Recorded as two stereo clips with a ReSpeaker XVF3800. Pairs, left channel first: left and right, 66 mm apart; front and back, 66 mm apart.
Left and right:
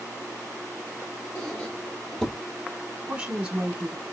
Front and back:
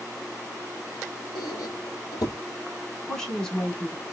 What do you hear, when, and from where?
1.4 s a squeak: 10° left, 1.9 m
3.1 s a woman speaking: 60° right, 1.3 m